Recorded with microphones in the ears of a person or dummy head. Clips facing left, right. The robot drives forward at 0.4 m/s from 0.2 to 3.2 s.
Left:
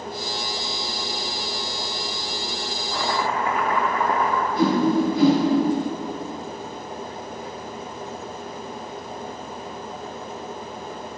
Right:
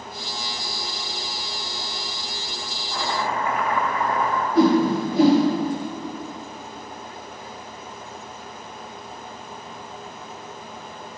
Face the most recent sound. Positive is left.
turn(degrees=-45)  # may be behind; listen again after turning